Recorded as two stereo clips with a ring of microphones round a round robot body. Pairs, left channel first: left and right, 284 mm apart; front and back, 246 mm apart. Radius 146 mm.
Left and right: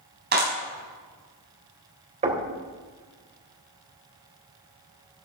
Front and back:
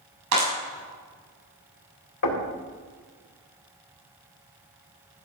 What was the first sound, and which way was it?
A clap, 150° right.